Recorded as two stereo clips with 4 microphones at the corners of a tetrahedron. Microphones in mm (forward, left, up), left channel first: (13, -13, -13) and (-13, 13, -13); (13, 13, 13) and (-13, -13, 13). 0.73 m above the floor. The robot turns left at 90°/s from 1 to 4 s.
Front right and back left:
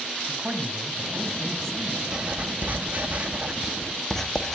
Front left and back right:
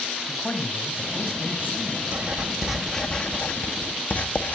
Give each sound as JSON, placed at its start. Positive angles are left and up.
{"t": 0.3, "sound": "a man speaking", "azimuth_deg": 85, "distance_m": 3.5}
{"t": 2.1, "sound": "writing", "azimuth_deg": -165, "distance_m": 1.6}